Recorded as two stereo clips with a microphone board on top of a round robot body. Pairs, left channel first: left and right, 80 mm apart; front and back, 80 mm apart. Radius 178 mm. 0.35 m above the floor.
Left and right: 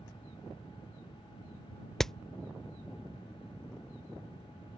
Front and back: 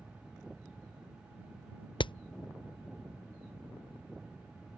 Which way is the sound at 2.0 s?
5° left.